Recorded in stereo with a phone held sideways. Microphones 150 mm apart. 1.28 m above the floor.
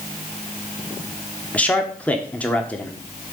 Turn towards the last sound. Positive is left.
turn(degrees=10)  # may be behind; listen again after turning